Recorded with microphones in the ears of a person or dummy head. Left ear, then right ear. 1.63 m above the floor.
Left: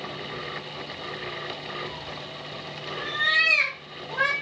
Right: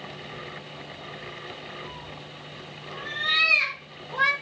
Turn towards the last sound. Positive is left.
turn(degrees=35)  # may be behind; listen again after turning